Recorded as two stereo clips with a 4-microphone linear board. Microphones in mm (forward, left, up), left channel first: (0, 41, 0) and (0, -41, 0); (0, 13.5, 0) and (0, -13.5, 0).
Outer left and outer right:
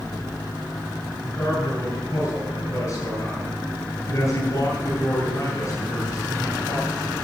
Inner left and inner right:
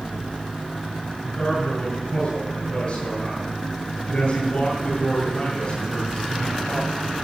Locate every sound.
1.2 s a man speaking: 35° left (ahead or behind), 8 m